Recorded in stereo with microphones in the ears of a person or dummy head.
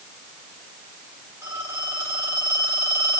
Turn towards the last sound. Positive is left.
turn(degrees=-10)  # may be behind; listen again after turning